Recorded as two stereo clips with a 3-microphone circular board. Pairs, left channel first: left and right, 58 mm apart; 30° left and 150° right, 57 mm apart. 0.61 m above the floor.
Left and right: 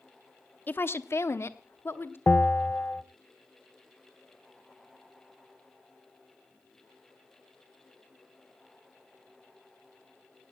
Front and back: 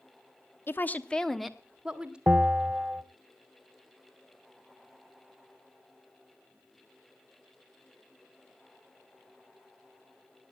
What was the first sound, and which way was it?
A woman speaking, 50° left.